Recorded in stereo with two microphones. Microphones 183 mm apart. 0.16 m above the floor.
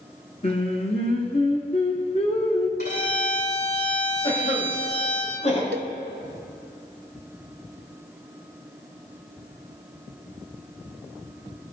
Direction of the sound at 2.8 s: 60° left (ahead or behind).